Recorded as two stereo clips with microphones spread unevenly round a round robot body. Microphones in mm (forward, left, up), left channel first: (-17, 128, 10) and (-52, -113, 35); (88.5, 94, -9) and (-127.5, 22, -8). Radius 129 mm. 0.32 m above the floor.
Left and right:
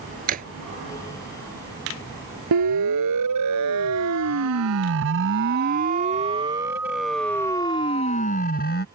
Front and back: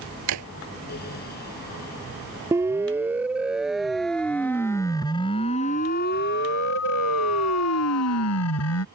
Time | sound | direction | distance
0.3 | a drawer | 155° right | ?
2.5 | a siren | 80° right | ?